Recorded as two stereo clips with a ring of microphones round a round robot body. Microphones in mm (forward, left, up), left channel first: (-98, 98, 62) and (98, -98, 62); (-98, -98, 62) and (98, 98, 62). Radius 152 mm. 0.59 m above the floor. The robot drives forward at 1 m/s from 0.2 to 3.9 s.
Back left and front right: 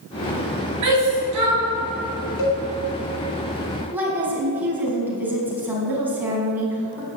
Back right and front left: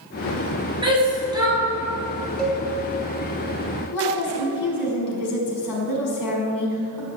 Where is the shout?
30° right, 5.5 m; by 1.6 s 35° right, 4.5 m.